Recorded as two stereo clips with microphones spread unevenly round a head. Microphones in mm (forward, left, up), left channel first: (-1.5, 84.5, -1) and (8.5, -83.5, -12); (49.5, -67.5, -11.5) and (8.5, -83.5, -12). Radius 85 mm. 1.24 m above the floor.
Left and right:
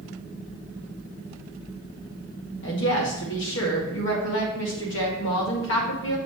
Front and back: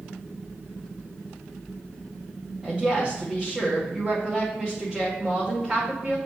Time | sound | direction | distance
2.6 | a woman speaking | 120° left | 1.8 m